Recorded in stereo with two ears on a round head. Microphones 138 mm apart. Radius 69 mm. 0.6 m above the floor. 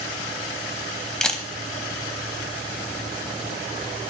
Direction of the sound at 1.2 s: 5° left (ahead or behind).